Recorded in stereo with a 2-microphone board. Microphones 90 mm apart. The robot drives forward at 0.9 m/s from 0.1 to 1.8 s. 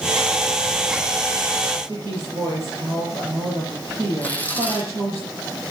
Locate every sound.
1.9 s a woman speaking: 45° right (ahead or behind), 9 m
4.2 s tearing paper: 20° left (ahead or behind), 2.5 m